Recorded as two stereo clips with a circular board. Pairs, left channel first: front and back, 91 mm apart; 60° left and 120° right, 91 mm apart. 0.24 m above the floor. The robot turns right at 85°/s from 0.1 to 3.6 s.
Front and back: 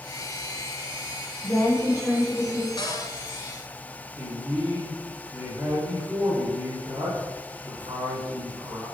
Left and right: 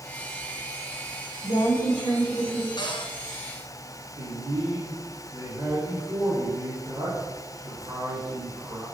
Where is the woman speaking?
25° left, 3 m; by 2.7 s 135° left, 3 m.